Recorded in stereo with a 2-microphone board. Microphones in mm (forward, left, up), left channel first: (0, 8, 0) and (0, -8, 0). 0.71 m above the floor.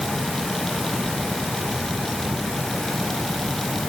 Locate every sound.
Only background noise.